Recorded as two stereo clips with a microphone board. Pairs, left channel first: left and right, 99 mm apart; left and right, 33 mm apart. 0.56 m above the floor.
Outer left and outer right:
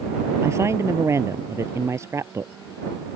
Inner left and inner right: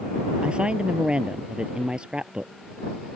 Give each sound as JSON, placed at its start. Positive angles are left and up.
{"t": 0.4, "sound": "a woman speaking", "side_deg": -30}